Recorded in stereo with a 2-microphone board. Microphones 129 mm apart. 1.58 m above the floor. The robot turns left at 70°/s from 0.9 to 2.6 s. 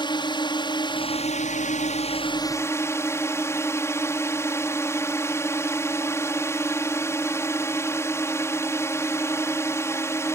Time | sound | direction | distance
0.0 | a drone | 140° left | ?